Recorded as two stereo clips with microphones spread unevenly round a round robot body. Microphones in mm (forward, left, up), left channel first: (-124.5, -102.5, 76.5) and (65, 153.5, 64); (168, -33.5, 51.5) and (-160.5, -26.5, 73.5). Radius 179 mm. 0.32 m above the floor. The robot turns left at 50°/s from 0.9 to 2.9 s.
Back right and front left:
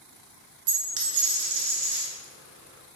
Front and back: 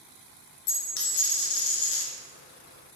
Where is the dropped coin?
50° left, 0.7 m; by 2.1 s 10° right, 0.7 m.